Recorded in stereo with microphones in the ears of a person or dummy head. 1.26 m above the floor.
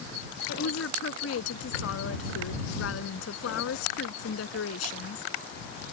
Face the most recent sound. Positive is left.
turn(degrees=85)